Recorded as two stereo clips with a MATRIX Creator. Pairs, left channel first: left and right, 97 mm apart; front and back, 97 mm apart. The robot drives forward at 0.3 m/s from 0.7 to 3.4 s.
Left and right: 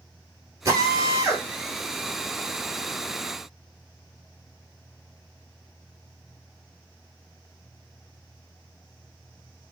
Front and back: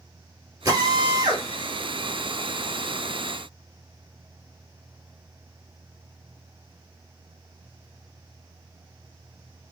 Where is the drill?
135° right, 1.8 m; by 1.4 s 140° right, 1.9 m.